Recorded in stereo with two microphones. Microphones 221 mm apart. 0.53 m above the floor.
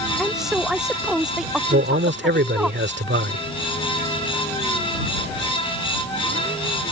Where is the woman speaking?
5° right (ahead or behind).